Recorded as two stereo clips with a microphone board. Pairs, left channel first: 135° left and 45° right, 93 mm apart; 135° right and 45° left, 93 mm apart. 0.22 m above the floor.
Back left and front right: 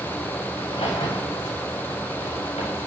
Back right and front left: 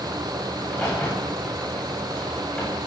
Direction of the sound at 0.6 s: 145° left.